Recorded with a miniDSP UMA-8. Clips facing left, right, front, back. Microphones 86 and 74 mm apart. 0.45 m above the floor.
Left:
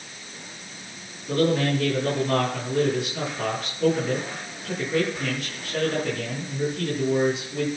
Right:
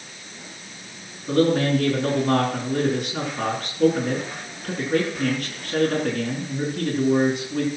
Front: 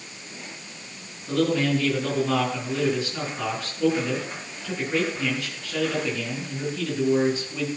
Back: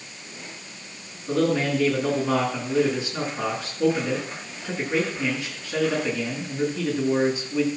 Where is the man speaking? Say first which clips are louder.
Right 3 dB, even; 105° right, 5 m.